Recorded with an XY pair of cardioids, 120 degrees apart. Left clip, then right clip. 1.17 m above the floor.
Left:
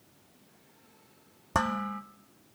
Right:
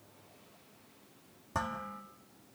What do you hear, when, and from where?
1.5 s dishes clattering: 50° left, 1.6 m